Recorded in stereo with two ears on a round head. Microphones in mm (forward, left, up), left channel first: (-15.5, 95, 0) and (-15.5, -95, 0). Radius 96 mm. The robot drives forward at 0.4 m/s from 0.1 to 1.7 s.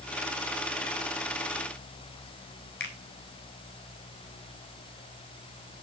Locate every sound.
2.8 s a finger snap: 55° left (ahead or behind), 3.5 m